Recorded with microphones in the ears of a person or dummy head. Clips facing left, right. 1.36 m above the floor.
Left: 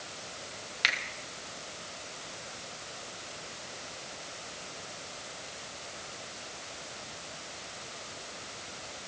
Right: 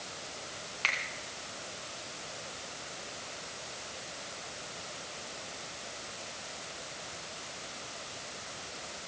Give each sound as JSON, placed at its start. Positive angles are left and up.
{"t": 0.8, "sound": "a finger snap", "side_deg": 20, "distance_m": 1.5}